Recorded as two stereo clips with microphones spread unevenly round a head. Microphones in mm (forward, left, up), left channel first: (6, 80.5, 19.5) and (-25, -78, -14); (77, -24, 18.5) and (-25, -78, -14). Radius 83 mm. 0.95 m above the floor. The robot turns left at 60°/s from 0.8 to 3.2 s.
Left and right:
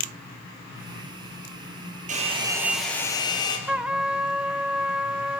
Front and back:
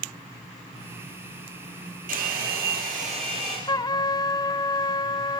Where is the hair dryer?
150° right, 5.5 m; by 3.6 s 145° left, 5.5 m.